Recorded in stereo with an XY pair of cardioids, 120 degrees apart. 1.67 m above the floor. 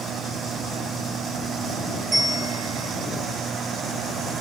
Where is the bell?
25° right, 3.5 m.